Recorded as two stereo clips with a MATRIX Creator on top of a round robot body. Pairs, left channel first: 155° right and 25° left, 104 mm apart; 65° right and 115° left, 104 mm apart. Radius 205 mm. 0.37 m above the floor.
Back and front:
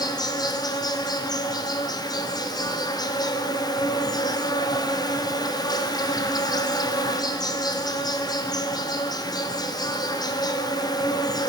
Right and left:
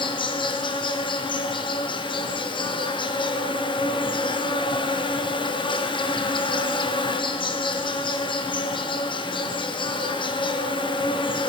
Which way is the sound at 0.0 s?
105° right.